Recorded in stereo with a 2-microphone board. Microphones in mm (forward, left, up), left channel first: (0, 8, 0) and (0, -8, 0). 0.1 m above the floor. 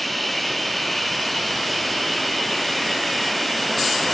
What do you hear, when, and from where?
0.0 s running water: 15° left (ahead or behind), 1.4 m